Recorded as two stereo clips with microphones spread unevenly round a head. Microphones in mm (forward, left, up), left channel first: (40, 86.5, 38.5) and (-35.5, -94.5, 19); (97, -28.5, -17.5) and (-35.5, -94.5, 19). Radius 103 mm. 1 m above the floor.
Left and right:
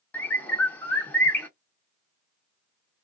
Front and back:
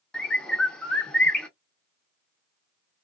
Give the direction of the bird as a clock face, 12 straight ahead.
8 o'clock.